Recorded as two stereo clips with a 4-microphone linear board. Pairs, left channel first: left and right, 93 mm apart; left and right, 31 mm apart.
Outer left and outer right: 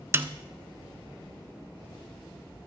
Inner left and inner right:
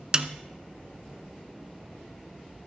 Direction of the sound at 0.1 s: 25° right (ahead or behind).